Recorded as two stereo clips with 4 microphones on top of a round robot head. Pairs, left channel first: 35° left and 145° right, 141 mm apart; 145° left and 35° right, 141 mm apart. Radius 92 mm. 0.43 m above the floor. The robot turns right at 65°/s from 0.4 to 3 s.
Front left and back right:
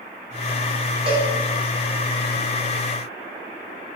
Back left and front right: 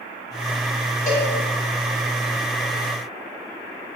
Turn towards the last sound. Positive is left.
turn(degrees=-65)